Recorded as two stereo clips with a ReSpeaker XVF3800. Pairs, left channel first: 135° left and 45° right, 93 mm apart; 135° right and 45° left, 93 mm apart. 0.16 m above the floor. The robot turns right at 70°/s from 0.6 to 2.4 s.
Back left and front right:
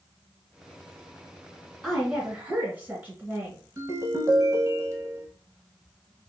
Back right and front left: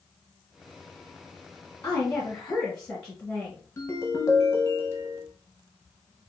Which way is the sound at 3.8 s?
85° right.